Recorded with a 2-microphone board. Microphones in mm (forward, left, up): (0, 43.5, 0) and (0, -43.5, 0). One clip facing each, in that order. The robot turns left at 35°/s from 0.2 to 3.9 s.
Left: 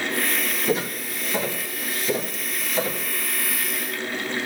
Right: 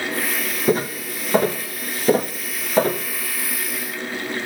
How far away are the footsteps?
About 1.6 m.